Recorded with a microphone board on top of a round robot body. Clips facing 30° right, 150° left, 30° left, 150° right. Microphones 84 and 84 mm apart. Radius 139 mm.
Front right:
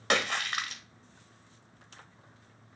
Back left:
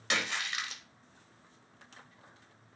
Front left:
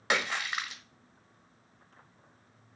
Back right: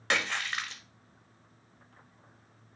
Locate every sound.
0.1 s a splash: 45° right, 1.6 m